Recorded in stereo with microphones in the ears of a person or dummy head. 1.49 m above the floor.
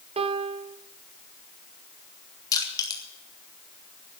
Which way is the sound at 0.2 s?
30° right (ahead or behind).